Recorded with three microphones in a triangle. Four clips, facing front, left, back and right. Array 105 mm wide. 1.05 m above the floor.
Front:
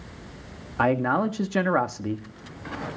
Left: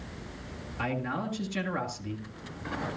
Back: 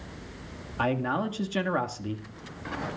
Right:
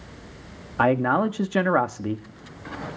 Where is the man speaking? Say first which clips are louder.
Right 13 dB, front 5 dB; 65° right, 2 m.